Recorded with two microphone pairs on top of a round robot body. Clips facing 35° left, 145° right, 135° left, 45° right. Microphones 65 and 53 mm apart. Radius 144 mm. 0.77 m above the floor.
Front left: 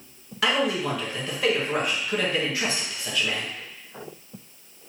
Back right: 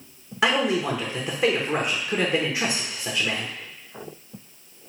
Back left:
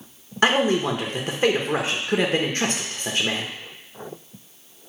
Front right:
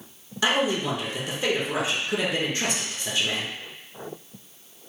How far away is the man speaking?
About 0.8 m.